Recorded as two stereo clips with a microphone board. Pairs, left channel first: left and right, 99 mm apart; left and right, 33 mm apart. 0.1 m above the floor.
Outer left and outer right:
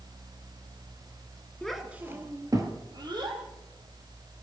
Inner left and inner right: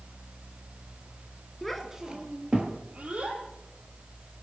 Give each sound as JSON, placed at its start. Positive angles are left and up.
{"t": 1.6, "sound": "a child speaking", "side_deg": 5, "distance_m": 1.0}